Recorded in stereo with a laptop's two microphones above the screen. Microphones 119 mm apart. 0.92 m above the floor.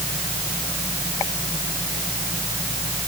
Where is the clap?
I don't hear a clap.